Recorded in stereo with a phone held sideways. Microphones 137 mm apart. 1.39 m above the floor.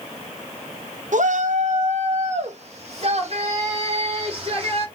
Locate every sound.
1.1 s a shout: 65° right (ahead or behind), 1.0 m; by 4.8 s 45° right (ahead or behind), 3.5 m